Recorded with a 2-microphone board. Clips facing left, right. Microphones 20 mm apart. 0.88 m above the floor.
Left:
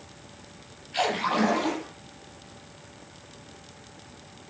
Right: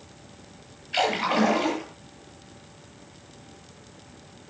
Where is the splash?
50° right (ahead or behind), 8.5 m.